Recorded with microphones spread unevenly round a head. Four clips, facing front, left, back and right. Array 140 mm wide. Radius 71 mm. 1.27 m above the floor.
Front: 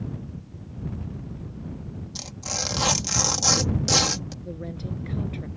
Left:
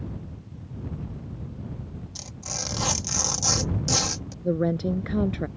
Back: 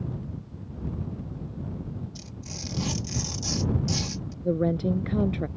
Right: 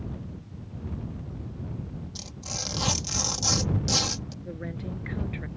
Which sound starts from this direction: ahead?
Tearing paper, at 2.1 s.